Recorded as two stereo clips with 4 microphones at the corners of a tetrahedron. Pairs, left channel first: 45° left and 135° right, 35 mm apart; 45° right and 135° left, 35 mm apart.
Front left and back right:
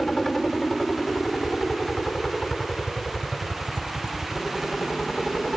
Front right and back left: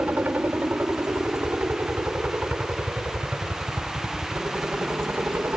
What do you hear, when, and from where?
0.0 s a helicopter: 125° left